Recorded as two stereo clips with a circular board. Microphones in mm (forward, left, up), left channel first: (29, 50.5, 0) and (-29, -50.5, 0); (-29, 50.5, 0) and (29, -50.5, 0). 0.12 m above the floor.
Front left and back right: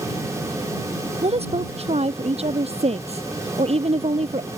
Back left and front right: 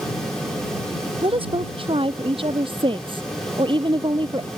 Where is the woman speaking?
95° right; by 4.5 s 105° right.